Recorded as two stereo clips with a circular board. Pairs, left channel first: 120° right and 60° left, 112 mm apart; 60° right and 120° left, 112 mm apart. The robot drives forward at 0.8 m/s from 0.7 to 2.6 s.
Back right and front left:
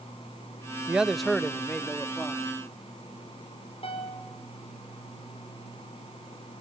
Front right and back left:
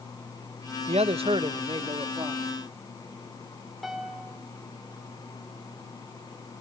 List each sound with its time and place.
0.9 s a man speaking: 140° left, 0.5 m; by 2.5 s 170° left, 1.7 m
3.8 s a piano: 150° right, 4 m